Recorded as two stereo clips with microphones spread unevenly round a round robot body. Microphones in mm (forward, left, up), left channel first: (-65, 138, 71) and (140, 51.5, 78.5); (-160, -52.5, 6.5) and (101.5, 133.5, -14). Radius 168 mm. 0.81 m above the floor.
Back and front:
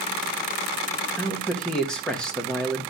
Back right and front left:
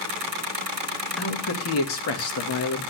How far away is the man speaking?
About 1.3 m.